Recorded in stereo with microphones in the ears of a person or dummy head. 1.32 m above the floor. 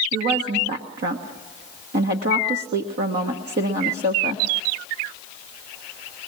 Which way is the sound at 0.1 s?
55° right (ahead or behind).